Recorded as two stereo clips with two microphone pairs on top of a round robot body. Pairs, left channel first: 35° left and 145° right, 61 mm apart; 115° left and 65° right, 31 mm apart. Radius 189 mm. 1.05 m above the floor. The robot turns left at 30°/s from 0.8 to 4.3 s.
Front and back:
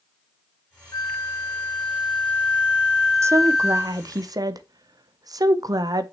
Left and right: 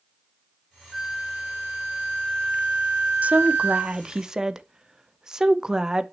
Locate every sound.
0.9 s a flute: 5° left, 1.0 m; by 4.0 s 85° right, 1.0 m
3.2 s a woman speaking: 105° right, 0.9 m; by 6.0 s 135° right, 0.9 m